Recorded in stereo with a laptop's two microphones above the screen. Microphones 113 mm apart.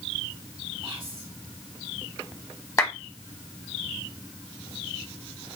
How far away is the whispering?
About 1.5 m.